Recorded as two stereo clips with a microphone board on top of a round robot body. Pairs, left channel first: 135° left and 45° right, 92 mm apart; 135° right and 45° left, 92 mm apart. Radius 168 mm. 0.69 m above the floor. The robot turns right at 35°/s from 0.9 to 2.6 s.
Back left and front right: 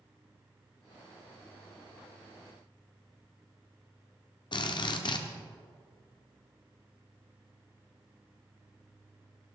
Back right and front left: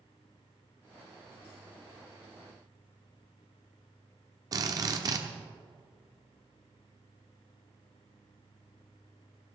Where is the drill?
95° left, 1.0 m.